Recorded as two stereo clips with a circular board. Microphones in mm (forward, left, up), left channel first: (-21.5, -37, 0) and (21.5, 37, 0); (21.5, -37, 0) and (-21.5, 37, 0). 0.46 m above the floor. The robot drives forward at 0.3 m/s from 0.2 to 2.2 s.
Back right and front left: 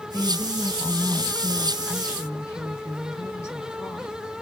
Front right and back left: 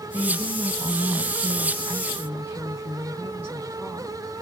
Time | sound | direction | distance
0.1 | a woman speaking | straight behind | 3.5 m